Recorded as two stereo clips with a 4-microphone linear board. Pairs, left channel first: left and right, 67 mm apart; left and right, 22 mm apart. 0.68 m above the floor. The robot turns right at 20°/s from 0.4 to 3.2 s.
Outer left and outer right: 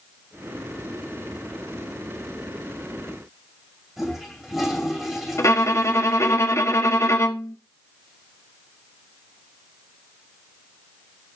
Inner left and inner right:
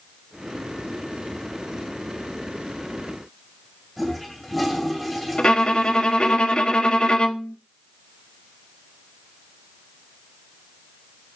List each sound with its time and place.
4.0 s a toilet flushing: 5° right (ahead or behind), 2.5 m
5.4 s a violin: 45° left (ahead or behind), 0.9 m